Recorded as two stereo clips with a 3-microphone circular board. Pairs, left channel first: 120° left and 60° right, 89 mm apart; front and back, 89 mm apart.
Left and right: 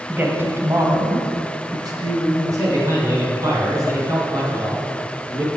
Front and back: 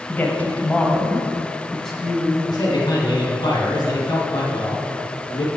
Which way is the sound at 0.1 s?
25° right.